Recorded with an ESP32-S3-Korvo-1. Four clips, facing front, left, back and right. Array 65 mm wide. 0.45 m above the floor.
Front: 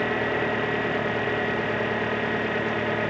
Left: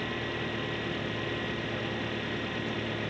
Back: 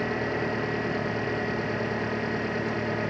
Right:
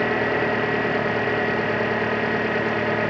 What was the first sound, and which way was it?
An engine running, 75° right.